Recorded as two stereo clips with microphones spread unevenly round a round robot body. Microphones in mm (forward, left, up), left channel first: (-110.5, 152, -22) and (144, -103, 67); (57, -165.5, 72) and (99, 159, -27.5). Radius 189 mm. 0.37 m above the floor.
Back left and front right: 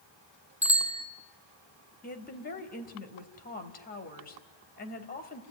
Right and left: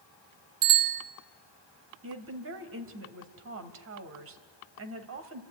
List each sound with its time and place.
0.6 s a bicycle bell: 45° left, 3 m
2.0 s a woman speaking: 85° left, 2 m